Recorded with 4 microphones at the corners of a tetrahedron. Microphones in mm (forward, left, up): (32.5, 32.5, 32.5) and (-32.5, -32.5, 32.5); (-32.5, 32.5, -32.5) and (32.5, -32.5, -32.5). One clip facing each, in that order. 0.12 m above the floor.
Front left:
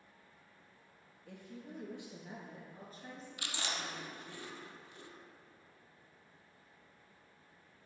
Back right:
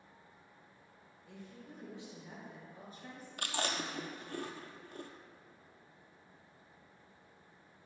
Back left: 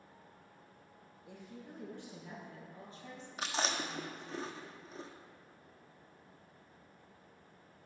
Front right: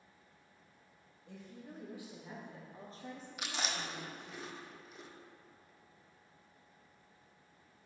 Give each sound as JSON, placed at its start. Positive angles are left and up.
{"t": 1.3, "sound": "a woman speaking", "azimuth_deg": 55, "distance_m": 3.0}
{"t": 3.4, "sound": "chewing", "azimuth_deg": -170, "distance_m": 0.8}